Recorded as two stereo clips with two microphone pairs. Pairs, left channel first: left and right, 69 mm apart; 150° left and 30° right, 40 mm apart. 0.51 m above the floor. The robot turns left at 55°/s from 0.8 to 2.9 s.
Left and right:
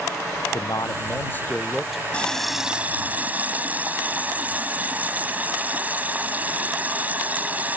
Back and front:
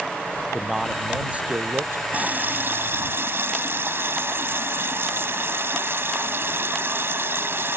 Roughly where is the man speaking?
Ahead left.